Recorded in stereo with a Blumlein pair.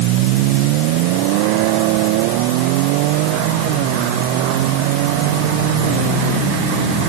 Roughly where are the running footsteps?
I don't hear running footsteps.